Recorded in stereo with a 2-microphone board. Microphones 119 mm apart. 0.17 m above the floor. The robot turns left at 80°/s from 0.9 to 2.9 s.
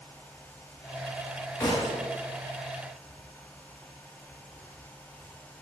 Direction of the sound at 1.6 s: 25° left (ahead or behind).